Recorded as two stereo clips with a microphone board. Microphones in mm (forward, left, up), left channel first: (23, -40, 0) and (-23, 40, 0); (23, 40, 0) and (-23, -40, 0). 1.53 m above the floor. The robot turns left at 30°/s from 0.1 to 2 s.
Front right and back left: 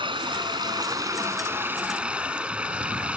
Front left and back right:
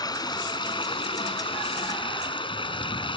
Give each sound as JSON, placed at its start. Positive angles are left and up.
{"t": 0.0, "sound": "running water", "azimuth_deg": 100}